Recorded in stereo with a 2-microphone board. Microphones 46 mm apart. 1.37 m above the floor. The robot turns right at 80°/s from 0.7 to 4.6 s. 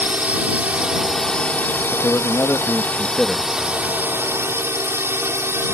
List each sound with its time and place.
0.0 s a drone: 35° right; by 5.7 s 80° right
1.9 s a man speaking: 60° left; by 3.5 s 175° right